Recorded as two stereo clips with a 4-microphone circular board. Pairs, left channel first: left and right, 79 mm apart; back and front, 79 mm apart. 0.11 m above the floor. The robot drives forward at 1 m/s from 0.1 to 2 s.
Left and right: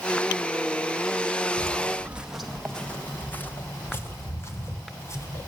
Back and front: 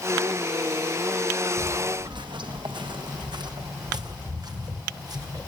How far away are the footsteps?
About 1.7 m.